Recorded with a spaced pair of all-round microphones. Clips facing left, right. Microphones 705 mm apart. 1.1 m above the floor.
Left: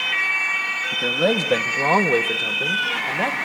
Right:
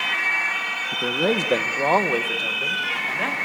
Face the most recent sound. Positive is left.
turn(degrees=65)  # may be behind; listen again after turning